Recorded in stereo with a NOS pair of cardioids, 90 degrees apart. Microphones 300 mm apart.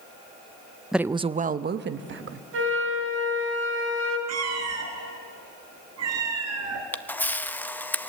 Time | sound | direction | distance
0.9 | a woman speaking | straight ahead | 0.5 m
2.5 | a flute | 50° right | 3.5 m
4.3 | a cat meowing | 65° right | 3 m
6.9 | a camera shutter | 5° left | 0.7 m